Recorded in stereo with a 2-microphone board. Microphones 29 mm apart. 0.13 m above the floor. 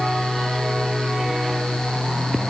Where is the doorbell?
No doorbell in this recording.